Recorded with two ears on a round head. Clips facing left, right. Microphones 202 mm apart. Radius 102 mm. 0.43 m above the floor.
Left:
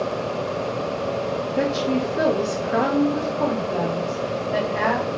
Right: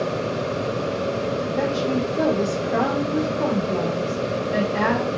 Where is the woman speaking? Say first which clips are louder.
Left 2 dB; 25° left (ahead or behind), 1.2 m; by 5.1 s 30° right (ahead or behind), 1.5 m.